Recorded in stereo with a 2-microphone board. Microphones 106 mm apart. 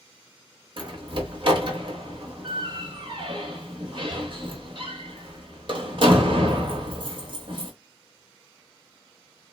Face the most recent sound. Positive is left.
turn(degrees=-50)  # may be behind; listen again after turning